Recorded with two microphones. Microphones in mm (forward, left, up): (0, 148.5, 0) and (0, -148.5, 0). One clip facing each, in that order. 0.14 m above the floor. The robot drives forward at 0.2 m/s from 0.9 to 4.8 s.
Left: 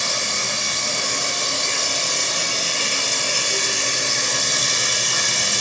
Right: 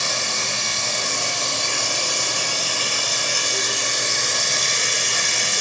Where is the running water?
20° left (ahead or behind), 1.1 m; by 5.6 s 45° left (ahead or behind), 0.5 m.